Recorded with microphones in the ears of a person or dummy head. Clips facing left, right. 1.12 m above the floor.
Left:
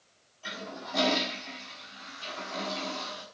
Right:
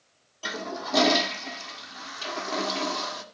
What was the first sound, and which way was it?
A toilet flushing, 70° right (ahead or behind).